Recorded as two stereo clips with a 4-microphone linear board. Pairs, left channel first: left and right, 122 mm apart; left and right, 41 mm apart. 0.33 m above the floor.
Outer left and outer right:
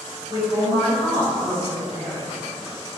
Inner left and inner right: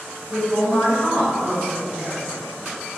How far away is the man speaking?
About 1.7 m.